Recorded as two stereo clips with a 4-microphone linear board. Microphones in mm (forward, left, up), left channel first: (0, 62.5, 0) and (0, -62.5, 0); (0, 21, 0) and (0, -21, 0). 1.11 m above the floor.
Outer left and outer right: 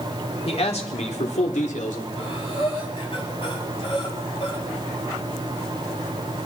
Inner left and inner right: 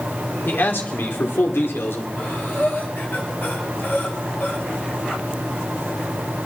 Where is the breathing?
50° left (ahead or behind), 7.5 m.